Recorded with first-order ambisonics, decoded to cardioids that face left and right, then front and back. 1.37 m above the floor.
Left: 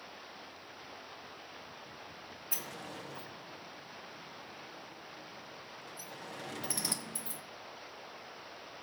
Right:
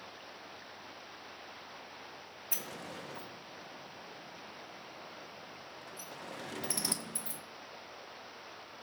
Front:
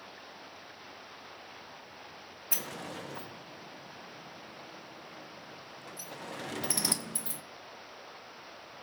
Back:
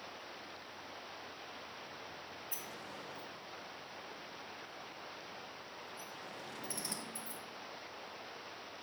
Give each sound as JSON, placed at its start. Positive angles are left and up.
{"t": 2.5, "sound": "a sliding door", "azimuth_deg": -5, "distance_m": 0.5}